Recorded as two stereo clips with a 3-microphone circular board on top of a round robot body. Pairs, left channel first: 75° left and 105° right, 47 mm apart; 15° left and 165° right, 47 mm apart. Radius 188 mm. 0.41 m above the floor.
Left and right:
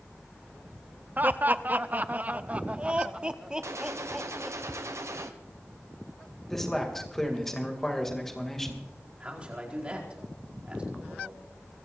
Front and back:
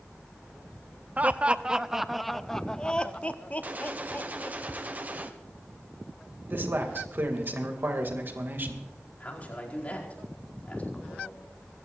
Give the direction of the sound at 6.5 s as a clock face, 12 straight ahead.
7 o'clock.